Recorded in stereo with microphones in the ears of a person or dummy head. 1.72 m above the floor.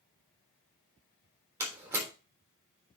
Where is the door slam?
20° right (ahead or behind), 3 m.